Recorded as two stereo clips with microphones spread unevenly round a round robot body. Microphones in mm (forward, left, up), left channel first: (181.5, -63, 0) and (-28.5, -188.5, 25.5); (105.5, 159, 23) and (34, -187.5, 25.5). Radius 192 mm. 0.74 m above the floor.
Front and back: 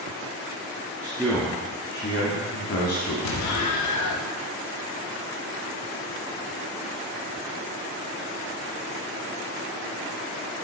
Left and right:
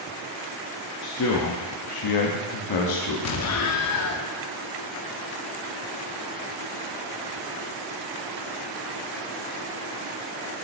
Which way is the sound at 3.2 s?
30° left.